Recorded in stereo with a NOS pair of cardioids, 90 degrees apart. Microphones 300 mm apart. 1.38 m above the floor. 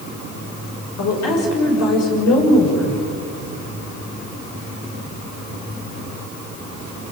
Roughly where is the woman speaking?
Ahead left.